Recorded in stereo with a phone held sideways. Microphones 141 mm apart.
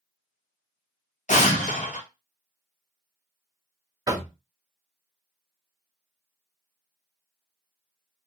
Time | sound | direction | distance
1.3 | an explosion | 60° left (ahead or behind) | 0.7 m
4.1 | knocking | 25° right (ahead or behind) | 0.6 m